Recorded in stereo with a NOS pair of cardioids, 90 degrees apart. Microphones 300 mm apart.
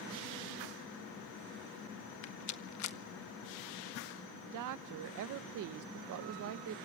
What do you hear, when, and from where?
2.2 s a rattle: 60° left, 1.2 m
4.5 s a woman speaking: 70° right, 0.9 m